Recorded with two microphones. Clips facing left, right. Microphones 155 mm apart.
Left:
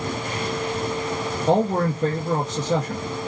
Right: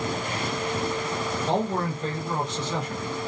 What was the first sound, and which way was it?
A man speaking, 45° left (ahead or behind).